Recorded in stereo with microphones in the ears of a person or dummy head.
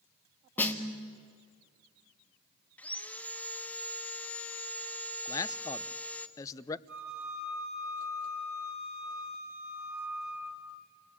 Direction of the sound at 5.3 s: 15° left (ahead or behind).